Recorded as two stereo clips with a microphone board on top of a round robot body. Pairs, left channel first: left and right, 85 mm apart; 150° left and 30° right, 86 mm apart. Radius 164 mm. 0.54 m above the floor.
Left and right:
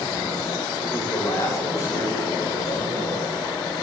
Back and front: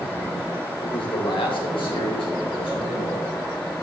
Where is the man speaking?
140° left, 3 m; by 3.3 s 145° left, 4.5 m.